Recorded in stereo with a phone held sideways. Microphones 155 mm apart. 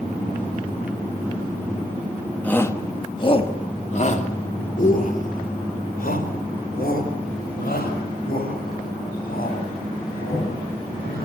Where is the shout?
10° left (ahead or behind), 1.6 m; by 11.3 s 75° left (ahead or behind), 9 m.